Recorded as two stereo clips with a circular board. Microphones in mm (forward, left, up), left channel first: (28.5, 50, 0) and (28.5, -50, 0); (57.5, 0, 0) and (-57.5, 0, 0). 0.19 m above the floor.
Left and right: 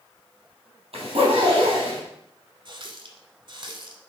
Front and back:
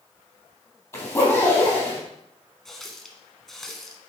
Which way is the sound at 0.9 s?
65° right.